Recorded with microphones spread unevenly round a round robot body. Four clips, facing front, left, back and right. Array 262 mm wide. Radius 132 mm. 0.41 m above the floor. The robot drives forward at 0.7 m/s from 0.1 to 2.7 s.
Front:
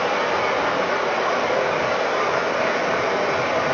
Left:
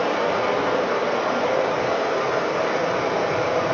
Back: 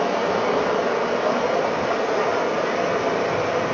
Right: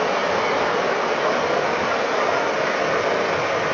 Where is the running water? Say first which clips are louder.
Right 1 dB, even; 175° left, 3.5 m.